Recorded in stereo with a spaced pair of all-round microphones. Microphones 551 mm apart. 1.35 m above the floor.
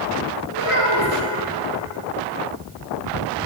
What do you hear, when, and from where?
0.5 s a child speaking: 60° left (ahead or behind), 1.3 m